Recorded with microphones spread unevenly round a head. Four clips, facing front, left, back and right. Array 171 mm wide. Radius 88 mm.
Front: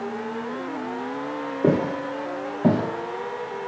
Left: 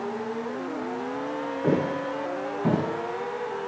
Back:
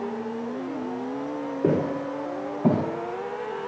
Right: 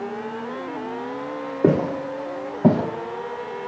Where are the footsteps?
75° right, 4 m; by 3.7 s 55° right, 1.8 m.